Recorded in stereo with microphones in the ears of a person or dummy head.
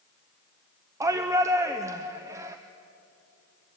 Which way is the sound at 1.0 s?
15° right (ahead or behind).